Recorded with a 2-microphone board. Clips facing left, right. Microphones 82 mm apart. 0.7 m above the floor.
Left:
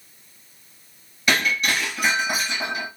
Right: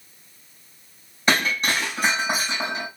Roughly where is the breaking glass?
Right.